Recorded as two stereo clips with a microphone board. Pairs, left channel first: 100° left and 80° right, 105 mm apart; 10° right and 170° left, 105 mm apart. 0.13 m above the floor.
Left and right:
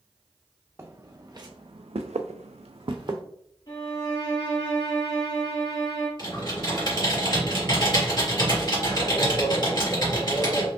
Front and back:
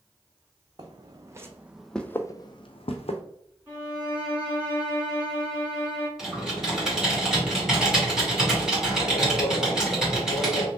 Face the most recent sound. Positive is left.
turn(degrees=85)